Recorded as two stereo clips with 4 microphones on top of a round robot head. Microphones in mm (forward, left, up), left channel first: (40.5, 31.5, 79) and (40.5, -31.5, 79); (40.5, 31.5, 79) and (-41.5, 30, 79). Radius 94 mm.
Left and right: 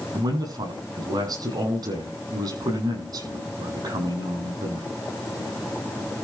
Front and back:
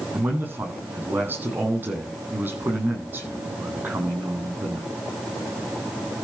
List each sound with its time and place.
0.1 s a man speaking: 110° right, 8 m